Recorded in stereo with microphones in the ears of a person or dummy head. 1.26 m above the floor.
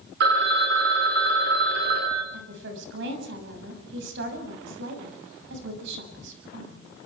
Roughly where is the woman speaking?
Right.